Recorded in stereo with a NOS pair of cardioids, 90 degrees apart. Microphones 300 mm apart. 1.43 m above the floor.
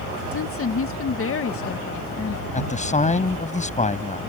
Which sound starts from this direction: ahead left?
A woman speaking, at 0.3 s.